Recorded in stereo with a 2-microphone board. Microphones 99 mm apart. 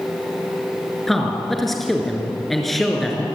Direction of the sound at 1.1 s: Centre (ahead or behind).